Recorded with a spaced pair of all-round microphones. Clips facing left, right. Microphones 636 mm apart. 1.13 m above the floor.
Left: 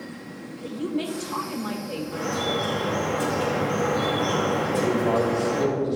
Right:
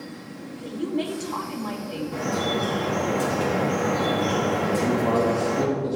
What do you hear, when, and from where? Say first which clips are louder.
0.6 s a woman speaking: right 1 dB; 35° left (ahead or behind), 2.0 m
2.1 s dripping: right 2 dB; 50° right (ahead or behind), 3.5 m
4.7 s a man speaking: even; 65° right (ahead or behind), 2 m